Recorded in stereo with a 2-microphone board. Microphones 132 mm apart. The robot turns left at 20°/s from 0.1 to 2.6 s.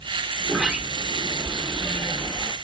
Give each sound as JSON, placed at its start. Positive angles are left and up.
{"t": 0.4, "sound": "a sliding door", "side_deg": -10, "distance_m": 0.8}